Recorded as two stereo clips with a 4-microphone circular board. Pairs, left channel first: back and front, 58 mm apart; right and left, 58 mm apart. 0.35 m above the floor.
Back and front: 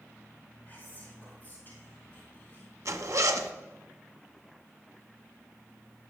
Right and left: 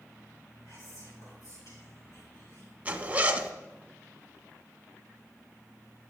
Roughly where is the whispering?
Behind right.